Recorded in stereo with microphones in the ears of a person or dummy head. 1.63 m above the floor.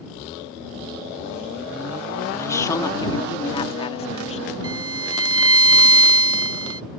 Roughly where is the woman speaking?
Centre.